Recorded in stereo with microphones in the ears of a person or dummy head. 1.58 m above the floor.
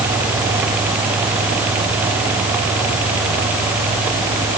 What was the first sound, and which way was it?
Only background noise.